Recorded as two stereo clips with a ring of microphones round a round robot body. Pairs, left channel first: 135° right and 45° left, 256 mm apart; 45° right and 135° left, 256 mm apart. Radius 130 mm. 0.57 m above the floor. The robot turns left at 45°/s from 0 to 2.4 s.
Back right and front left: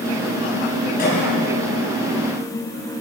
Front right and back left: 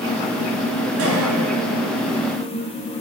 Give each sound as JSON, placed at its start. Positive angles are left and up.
{"t": 1.0, "sound": "a cough", "azimuth_deg": 170, "distance_m": 4.5}